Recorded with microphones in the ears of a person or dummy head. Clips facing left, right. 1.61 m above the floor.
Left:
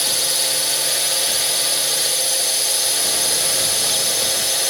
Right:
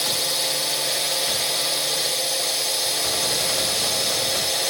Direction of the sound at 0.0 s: Centre (ahead or behind).